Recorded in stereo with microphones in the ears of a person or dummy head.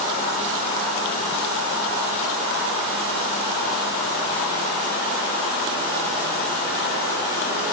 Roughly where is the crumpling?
No crumpling in this recording.